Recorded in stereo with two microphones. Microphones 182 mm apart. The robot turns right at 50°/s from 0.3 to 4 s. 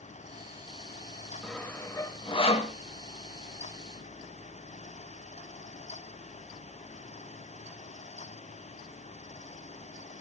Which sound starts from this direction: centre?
Sawing, at 1.4 s.